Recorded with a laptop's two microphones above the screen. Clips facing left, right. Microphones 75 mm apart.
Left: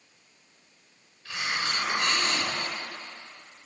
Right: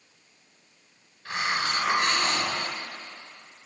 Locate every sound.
1.2 s a hiss: 45° right (ahead or behind), 1.0 m